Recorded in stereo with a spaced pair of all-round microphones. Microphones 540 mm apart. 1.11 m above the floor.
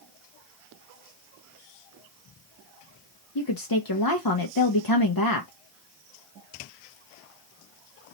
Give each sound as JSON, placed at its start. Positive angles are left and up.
{"t": 3.4, "sound": "a woman speaking", "side_deg": 40, "distance_m": 0.8}